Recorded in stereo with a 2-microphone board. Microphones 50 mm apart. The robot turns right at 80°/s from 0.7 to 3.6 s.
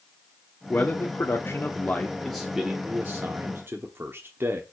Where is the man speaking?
45° left, 1.2 m; by 4.6 s 85° right, 1.2 m.